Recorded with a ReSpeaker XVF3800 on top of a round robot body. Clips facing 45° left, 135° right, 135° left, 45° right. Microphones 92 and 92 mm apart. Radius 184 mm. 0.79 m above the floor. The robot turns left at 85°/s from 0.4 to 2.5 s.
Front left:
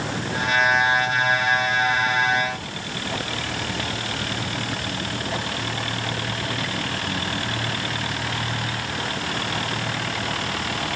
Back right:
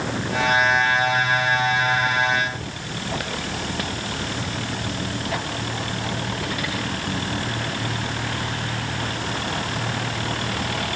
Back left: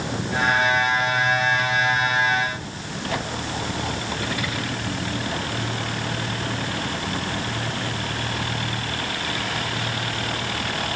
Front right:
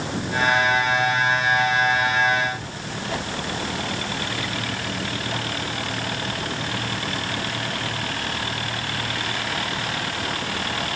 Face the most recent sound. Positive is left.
No sound to turn to.